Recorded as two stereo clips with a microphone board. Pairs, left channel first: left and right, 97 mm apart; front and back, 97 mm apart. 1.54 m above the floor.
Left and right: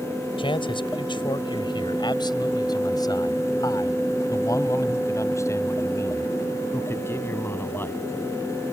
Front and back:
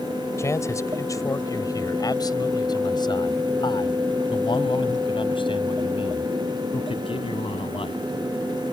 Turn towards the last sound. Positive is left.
turn(degrees=20)